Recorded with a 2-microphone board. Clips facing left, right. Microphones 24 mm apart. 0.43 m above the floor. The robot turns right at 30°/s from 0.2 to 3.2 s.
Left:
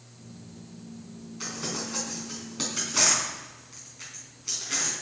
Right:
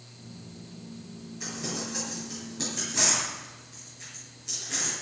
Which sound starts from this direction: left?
Crumpling, at 1.4 s.